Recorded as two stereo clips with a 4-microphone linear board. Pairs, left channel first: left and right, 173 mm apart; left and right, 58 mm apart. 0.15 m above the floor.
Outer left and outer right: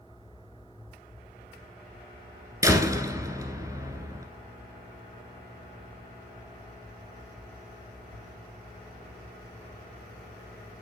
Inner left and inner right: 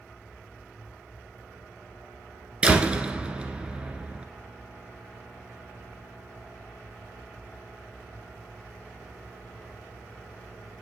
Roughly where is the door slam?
Centre.